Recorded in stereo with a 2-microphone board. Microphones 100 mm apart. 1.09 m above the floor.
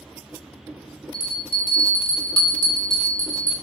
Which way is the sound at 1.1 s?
60° left (ahead or behind).